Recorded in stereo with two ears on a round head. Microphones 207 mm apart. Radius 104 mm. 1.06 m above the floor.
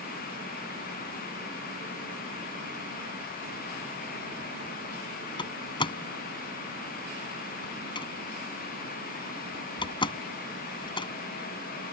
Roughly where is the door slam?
Left.